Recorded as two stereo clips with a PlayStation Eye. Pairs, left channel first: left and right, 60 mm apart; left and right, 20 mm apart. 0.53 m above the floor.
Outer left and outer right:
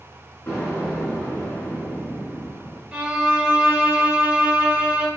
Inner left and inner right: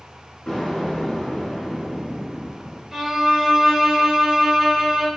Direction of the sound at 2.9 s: 20° right (ahead or behind).